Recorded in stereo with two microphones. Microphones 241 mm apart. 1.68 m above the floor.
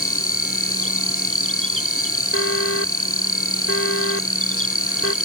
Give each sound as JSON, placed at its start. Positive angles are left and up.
{"t": 0.0, "sound": "an insect", "side_deg": 65}
{"t": 2.3, "sound": "an alarm", "side_deg": 65}